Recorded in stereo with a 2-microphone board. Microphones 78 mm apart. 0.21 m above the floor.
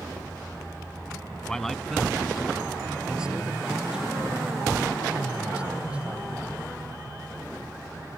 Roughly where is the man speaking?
Centre.